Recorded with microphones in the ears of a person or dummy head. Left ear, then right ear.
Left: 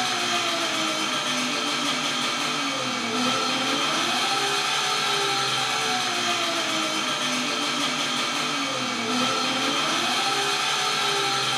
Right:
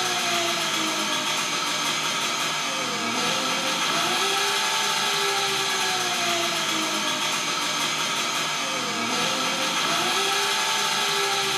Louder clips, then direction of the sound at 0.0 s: Even; 25° right (ahead or behind).